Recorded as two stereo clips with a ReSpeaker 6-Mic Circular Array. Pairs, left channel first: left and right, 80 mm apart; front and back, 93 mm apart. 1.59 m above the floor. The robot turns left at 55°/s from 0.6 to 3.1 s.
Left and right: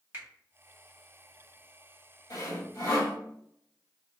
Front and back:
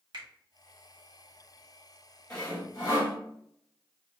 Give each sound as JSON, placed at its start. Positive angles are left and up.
{"t": 0.1, "sound": "a finger snap", "azimuth_deg": -155, "distance_m": 2.0}
{"t": 2.3, "sound": "sawing", "azimuth_deg": 80, "distance_m": 2.0}